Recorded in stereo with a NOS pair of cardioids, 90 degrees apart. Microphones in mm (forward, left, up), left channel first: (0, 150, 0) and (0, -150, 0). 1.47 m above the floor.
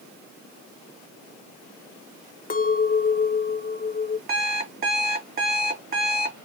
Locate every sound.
2.5 s a clink: 30° left, 1.2 m
4.3 s an alarm clock: 30° right, 2 m